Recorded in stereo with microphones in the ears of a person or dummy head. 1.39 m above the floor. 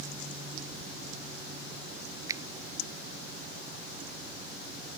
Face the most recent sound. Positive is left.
turn(degrees=-15)  # may be behind; listen again after turning